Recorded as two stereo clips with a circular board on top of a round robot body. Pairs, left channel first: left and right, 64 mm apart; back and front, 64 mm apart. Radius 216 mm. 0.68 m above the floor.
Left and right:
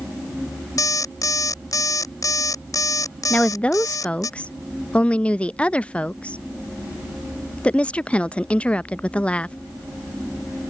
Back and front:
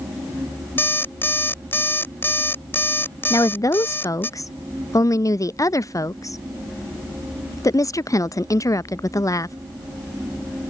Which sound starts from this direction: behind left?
An alarm clock, at 0.8 s.